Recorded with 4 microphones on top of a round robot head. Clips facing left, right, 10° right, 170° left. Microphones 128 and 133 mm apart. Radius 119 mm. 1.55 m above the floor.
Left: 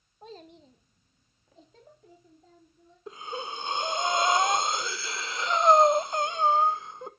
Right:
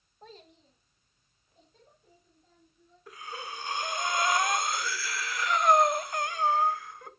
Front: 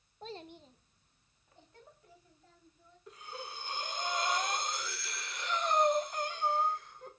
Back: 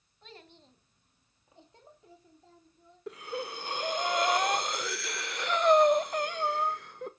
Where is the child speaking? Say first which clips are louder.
Left 5 dB, front 7 dB; 5° left, 0.8 m; by 3.0 s 105° left, 4 m.